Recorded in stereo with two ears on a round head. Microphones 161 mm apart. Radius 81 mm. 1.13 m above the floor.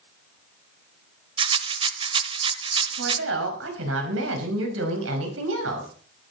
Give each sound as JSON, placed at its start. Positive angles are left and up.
{"t": 1.4, "sound": "a rattle", "side_deg": -30, "distance_m": 1.0}
{"t": 3.0, "sound": "a woman speaking", "side_deg": -90, "distance_m": 5.5}